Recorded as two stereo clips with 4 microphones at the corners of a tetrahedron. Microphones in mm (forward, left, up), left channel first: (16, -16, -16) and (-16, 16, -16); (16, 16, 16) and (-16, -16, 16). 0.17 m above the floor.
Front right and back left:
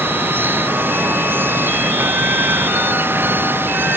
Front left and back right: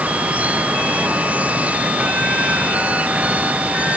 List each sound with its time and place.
0.0 s running water: 170° left